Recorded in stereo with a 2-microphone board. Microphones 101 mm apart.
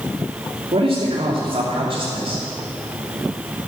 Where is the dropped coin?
No dropped coin in this recording.